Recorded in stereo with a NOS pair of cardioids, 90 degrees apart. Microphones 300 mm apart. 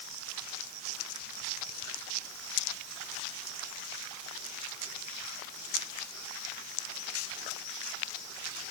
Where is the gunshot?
I don't hear a gunshot.